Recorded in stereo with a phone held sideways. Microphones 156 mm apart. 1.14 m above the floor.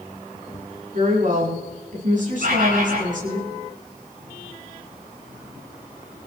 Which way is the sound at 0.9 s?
60° right (ahead or behind).